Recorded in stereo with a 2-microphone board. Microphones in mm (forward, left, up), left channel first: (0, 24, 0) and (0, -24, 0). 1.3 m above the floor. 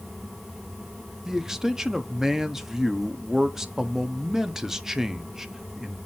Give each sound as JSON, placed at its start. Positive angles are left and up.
{"t": 1.2, "sound": "a man speaking", "side_deg": -10, "distance_m": 0.8}